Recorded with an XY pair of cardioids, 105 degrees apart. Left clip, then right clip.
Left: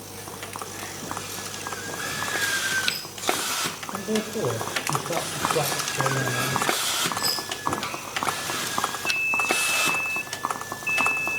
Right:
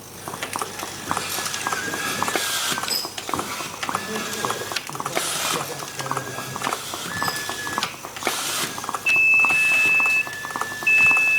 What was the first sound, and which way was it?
A man speaking, 55° left.